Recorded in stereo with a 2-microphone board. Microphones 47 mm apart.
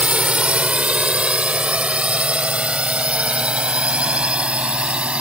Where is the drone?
25° right (ahead or behind).